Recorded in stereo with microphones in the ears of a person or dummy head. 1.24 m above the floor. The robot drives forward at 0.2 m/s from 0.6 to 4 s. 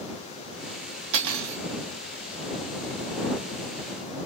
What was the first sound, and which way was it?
Cutlery clinking, 70° right (ahead or behind).